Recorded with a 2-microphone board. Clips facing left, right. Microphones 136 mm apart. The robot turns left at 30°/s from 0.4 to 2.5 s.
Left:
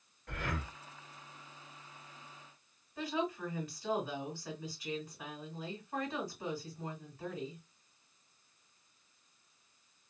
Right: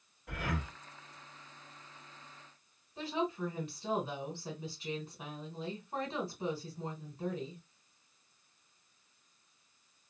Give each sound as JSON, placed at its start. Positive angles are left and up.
{"t": 0.3, "sound": "breathing", "side_deg": -10, "distance_m": 1.0}
{"t": 3.0, "sound": "a woman speaking", "side_deg": -25, "distance_m": 2.0}